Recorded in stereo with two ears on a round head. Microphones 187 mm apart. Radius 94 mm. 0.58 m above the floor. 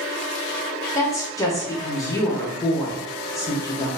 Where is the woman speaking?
15° left (ahead or behind), 0.7 m.